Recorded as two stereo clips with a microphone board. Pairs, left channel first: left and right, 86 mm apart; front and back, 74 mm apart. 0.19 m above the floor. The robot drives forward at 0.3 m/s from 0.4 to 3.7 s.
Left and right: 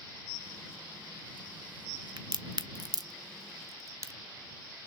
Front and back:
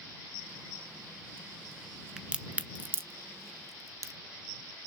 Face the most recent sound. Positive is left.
turn(degrees=-140)